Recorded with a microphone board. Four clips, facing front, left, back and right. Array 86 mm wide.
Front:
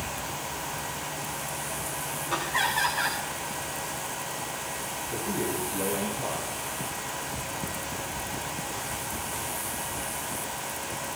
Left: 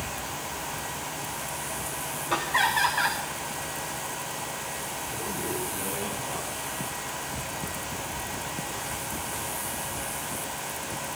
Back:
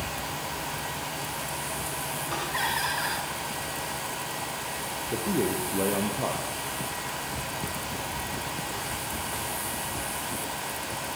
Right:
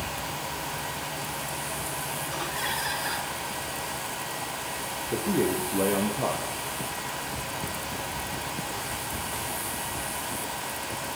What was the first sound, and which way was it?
Laughter, 80° left.